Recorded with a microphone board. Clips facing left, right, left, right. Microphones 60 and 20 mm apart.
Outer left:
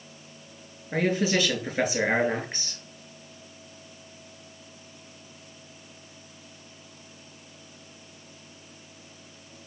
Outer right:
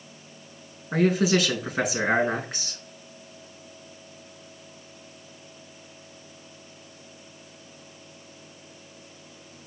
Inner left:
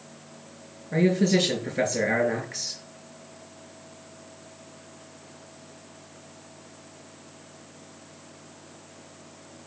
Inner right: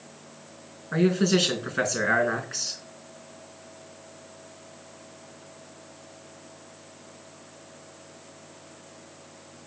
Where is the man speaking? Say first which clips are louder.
Outer right 3 dB, even; 80° right, 4.5 m.